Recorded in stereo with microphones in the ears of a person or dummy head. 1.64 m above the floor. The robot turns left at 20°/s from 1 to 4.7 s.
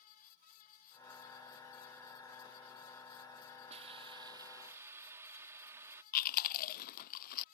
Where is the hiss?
35° right (ahead or behind); by 6.0 s 15° right (ahead or behind).